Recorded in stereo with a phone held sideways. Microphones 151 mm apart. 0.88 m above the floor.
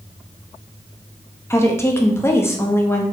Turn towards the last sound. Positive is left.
turn(degrees=15)  # may be behind; listen again after turning